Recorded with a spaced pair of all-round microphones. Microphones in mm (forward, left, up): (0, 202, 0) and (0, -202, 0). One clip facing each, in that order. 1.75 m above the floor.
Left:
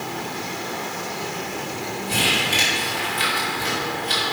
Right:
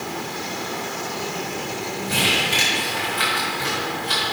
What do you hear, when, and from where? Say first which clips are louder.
2.1 s crumpling: even; 75° right (ahead or behind), 4.5 m